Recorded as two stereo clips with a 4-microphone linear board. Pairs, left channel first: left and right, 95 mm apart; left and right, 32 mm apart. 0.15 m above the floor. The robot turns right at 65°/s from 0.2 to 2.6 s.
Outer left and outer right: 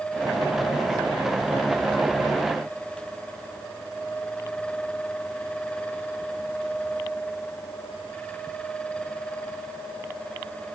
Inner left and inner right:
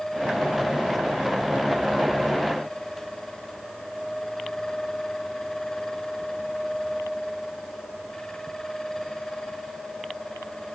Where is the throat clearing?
No throat clearing in this recording.